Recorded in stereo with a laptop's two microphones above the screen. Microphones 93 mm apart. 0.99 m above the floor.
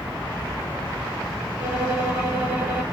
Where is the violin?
15° right (ahead or behind), 2.5 m.